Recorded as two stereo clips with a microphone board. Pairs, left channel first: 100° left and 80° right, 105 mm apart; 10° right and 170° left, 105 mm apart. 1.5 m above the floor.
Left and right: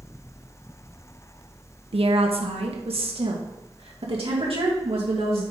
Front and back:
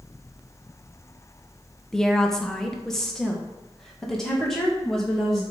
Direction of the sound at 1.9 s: 95° right.